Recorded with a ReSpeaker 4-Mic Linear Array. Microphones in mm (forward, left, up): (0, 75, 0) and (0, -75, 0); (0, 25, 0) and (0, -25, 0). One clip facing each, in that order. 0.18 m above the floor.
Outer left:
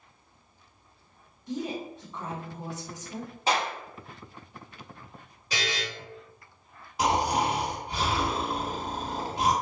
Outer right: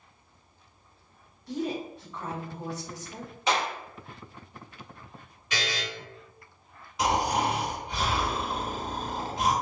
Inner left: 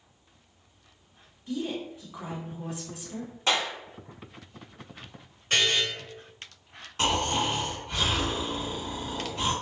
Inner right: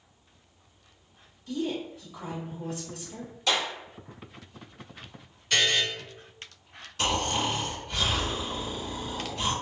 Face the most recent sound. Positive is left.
turn(degrees=35)  # may be behind; listen again after turning